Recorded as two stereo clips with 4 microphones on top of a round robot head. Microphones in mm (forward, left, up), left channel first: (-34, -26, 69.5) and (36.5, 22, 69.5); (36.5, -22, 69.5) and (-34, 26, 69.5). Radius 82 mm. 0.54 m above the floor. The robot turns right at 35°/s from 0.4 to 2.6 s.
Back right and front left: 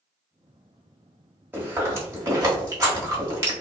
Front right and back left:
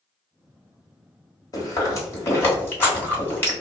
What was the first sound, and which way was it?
Chewing, 20° right.